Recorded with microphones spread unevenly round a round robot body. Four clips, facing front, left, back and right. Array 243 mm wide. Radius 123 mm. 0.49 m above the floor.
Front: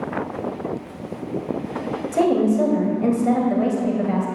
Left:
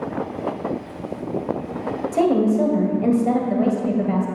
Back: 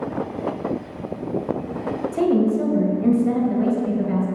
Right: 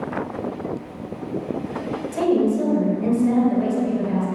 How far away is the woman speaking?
About 3 m.